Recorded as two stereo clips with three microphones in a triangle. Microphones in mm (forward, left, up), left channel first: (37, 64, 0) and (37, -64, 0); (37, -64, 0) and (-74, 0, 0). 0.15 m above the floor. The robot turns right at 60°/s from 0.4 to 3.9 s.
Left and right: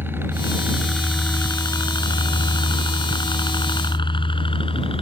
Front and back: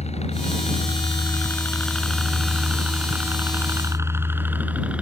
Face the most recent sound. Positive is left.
turn(degrees=70)